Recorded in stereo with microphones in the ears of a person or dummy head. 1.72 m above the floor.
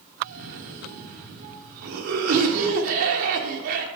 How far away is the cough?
About 1.2 m.